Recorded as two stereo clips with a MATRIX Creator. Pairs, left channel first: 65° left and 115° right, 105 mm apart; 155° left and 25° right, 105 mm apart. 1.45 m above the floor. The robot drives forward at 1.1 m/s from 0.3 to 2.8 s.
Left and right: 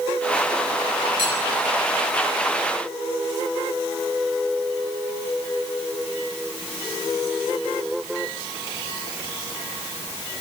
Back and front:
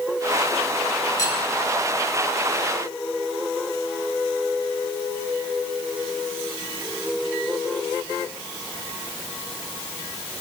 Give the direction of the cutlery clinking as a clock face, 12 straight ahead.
5 o'clock.